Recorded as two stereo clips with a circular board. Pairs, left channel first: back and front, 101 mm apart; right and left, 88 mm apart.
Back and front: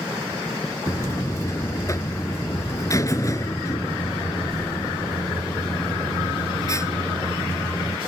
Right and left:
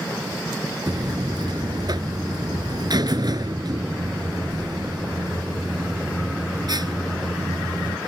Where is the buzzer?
125° left.